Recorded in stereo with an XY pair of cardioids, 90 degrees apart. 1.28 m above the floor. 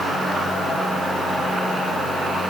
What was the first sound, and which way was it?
Only background noise.